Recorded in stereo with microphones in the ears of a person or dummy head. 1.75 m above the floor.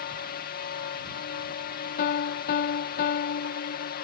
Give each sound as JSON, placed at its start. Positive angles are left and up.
{"t": 0.0, "sound": "a drone", "side_deg": 50}
{"t": 2.0, "sound": "a piano", "side_deg": 55}